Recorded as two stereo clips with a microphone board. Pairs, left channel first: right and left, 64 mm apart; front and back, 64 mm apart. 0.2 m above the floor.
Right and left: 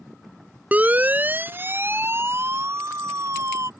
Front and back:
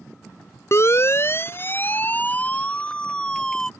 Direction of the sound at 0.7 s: 30° left.